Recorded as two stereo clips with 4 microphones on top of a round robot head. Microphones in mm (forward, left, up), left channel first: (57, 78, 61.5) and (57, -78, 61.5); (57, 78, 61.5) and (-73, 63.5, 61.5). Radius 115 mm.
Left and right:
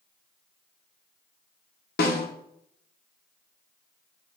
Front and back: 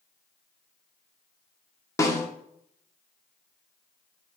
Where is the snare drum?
70° left, 1.4 m.